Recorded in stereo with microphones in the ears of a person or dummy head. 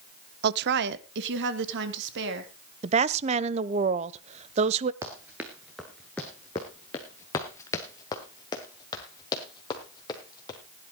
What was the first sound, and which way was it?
A woman speaking, 60° right (ahead or behind).